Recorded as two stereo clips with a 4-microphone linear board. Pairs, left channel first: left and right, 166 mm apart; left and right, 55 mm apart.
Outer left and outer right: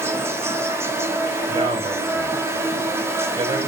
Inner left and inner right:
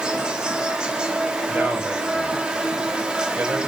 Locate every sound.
0.0 s an insect: 15° right (ahead or behind), 1.0 m
1.5 s a man speaking: 30° right (ahead or behind), 4 m